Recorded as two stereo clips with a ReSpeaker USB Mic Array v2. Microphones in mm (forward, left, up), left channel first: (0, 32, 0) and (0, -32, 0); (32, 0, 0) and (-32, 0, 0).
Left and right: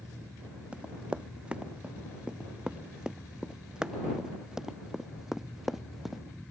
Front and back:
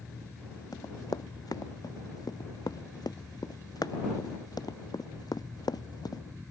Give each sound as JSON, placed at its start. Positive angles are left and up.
{"t": 0.7, "sound": "running footsteps", "azimuth_deg": -15}